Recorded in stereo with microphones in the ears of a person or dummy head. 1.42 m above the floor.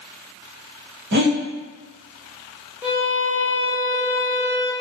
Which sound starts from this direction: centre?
A violin, at 2.8 s.